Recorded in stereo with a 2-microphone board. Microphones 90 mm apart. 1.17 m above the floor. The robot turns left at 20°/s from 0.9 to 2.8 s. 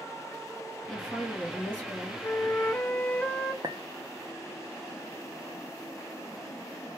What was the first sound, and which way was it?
A woman speaking, 5° right (ahead or behind).